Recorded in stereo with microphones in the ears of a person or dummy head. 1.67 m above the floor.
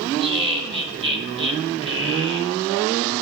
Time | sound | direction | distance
0.2 | laughter | 25° right (ahead or behind) | 1.1 m